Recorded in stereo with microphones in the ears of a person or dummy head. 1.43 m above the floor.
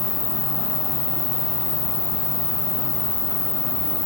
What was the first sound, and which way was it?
An insect, 50° left (ahead or behind).